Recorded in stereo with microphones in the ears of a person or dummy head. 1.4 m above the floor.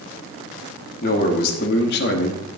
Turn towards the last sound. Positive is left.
turn(degrees=70)  # may be behind; listen again after turning